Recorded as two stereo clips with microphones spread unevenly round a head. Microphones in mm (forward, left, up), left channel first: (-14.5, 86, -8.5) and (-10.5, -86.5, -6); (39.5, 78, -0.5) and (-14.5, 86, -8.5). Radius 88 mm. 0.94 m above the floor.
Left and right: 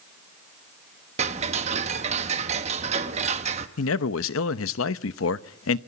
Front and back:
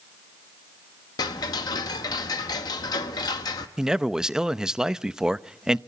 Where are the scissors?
No scissors in this recording.